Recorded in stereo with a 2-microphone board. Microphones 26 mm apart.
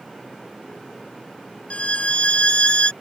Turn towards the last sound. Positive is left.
turn(degrees=50)  # may be behind; listen again after turning